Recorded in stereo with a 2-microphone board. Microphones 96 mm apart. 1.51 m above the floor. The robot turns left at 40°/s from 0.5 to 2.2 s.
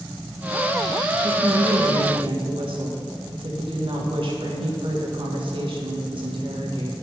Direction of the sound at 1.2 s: 80° right.